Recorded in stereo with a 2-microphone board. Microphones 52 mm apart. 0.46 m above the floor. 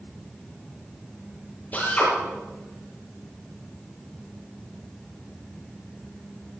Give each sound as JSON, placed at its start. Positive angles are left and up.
{"t": 1.7, "sound": "a drill", "side_deg": 35, "distance_m": 7.5}